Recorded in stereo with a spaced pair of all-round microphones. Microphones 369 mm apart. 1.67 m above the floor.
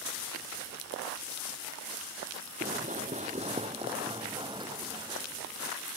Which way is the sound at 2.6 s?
25° right (ahead or behind).